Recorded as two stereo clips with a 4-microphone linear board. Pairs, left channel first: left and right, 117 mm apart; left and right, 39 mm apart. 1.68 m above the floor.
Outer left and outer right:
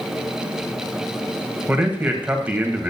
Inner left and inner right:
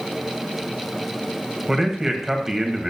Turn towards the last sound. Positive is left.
turn(degrees=-15)  # may be behind; listen again after turning